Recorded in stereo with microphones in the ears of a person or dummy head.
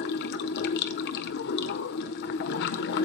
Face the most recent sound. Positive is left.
turn(degrees=55)  # may be behind; listen again after turning